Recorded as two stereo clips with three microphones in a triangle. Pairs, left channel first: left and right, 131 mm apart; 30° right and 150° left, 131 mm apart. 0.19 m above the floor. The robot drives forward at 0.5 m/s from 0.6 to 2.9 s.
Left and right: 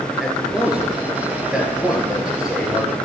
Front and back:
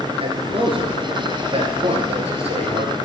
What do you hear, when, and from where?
0.2 s a man speaking: 175° right, 2.5 m